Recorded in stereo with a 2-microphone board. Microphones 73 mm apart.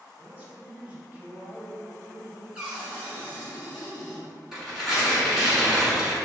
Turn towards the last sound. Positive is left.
turn(degrees=-5)  # may be behind; listen again after turning